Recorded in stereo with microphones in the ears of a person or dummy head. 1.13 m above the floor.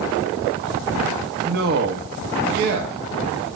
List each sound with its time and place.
1.4 s a man speaking: 55° right (ahead or behind), 1.4 m